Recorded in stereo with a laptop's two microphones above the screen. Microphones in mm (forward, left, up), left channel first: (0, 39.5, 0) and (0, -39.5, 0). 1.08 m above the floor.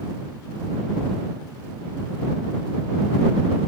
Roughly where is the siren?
I don't hear a siren.